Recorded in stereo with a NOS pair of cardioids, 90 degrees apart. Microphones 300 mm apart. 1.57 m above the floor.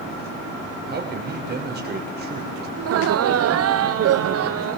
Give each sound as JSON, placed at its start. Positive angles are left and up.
{"t": 0.9, "sound": "a man speaking", "azimuth_deg": -30, "distance_m": 6.0}
{"t": 2.8, "sound": "laughter", "azimuth_deg": -50, "distance_m": 0.7}